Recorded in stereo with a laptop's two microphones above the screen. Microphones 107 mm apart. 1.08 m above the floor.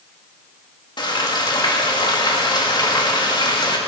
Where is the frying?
45° left (ahead or behind), 1.9 m.